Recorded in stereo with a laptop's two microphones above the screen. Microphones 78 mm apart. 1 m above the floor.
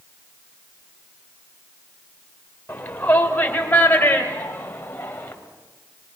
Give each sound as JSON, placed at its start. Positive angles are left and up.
{"t": 2.7, "sound": "a shout", "side_deg": 25, "distance_m": 4.0}